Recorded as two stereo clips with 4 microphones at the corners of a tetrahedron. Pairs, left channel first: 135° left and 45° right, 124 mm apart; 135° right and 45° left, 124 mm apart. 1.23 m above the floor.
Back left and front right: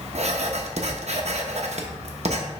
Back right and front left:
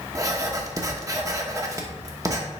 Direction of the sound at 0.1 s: 15° right.